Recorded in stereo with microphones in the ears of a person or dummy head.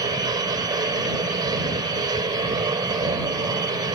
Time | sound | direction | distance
0.0 | a machine running | 20° right (ahead or behind) | ?